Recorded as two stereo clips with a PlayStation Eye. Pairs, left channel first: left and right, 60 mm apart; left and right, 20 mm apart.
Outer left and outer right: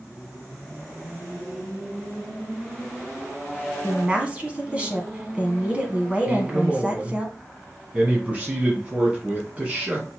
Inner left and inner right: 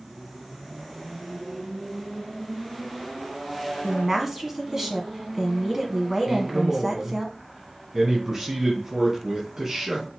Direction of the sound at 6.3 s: 25° right (ahead or behind).